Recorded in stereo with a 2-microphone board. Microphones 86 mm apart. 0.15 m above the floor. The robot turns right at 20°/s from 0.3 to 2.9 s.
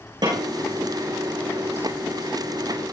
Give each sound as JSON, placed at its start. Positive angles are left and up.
{"t": 0.2, "sound": "a snare drum", "side_deg": -55, "distance_m": 8.0}